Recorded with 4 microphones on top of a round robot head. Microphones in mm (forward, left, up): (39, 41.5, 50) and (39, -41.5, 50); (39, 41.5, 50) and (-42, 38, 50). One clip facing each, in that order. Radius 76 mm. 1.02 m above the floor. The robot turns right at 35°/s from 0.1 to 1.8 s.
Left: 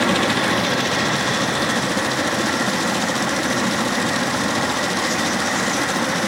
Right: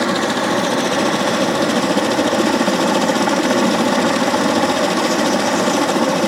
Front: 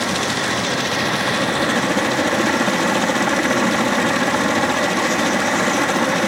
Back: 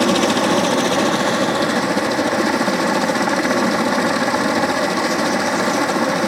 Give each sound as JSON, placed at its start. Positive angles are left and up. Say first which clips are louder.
{"t": 0.0, "sound": "a helicopter", "louder": "right 1 dB, back 6 dB", "azimuth_deg": -160}